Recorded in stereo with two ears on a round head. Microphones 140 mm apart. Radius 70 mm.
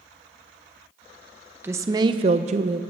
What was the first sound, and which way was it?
A woman speaking, 15° right (ahead or behind).